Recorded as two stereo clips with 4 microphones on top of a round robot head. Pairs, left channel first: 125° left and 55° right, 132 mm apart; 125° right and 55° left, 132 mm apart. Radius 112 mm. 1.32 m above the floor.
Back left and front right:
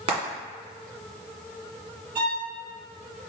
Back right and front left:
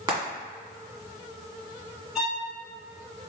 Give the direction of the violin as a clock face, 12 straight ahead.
1 o'clock.